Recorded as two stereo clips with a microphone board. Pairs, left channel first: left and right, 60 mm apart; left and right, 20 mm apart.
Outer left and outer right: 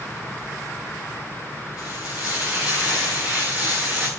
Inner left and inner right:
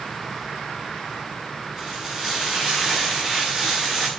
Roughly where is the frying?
Right.